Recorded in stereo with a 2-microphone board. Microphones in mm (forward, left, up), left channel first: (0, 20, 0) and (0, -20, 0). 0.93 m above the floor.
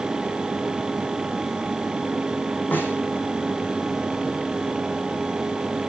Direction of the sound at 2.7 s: 50° left (ahead or behind).